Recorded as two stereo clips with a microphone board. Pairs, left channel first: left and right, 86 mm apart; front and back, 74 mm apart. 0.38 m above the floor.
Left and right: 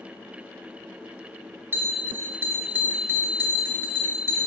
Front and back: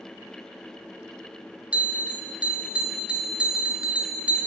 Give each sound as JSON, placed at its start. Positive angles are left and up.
{"t": 1.7, "sound": "a bell", "azimuth_deg": -120, "distance_m": 1.2}